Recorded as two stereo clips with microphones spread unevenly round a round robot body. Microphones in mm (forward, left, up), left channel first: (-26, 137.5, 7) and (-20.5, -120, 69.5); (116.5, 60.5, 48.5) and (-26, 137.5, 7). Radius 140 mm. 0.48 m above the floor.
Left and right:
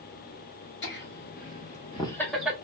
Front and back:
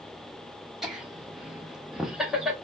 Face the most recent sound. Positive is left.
turn(degrees=165)